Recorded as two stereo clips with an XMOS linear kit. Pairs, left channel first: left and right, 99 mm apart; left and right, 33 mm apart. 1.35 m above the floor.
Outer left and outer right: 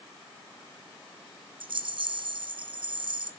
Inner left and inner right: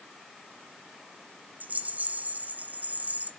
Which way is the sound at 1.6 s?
55° right (ahead or behind).